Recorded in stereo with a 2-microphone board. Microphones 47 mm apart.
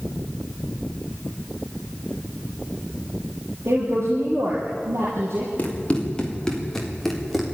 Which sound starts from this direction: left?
Running footsteps, at 5.6 s.